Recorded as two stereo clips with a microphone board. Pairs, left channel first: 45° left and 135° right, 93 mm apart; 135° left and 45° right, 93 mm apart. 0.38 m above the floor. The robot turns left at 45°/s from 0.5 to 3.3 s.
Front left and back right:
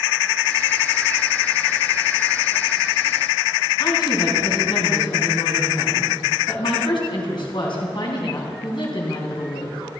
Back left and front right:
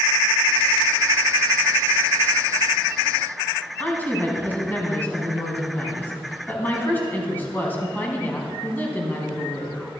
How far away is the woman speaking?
About 3.5 m.